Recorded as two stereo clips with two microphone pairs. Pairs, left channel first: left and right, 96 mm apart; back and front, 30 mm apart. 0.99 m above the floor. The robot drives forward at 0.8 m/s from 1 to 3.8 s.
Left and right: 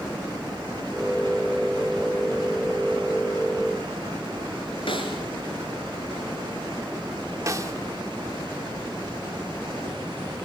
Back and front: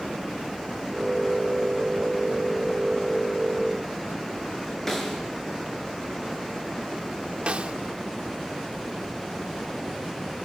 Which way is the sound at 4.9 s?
100° left.